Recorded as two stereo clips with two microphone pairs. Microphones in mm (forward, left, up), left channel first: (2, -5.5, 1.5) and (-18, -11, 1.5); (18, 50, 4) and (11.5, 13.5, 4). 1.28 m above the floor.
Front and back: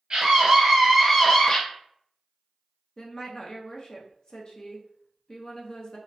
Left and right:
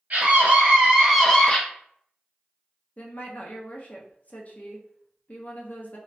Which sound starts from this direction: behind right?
A scream, at 0.1 s.